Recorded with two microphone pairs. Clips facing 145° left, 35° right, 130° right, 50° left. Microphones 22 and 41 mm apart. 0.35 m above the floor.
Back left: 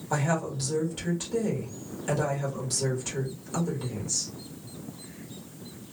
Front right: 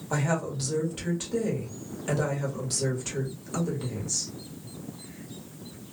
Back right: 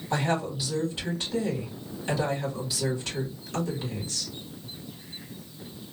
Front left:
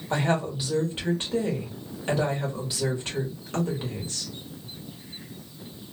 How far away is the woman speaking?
About 1.5 m.